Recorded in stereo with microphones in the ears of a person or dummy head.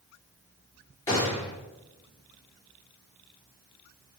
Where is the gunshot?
20° left (ahead or behind), 3 m.